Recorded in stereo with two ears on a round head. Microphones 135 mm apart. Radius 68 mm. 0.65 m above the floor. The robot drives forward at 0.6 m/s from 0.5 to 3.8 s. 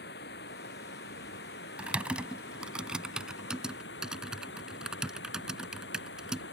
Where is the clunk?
No clunk in this recording.